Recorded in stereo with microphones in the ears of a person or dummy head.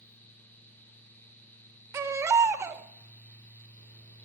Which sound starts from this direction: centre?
A baby crying, at 1.9 s.